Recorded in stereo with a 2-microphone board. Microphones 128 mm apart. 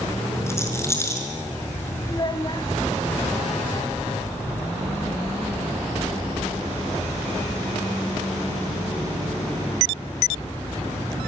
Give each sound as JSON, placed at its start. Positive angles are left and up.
{"t": 0.5, "sound": "a rattle", "side_deg": 20, "distance_m": 5.0}
{"t": 2.1, "sound": "a child speaking", "side_deg": 35, "distance_m": 1.7}